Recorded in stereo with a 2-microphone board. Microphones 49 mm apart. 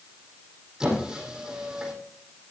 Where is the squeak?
15° right (ahead or behind), 4 m.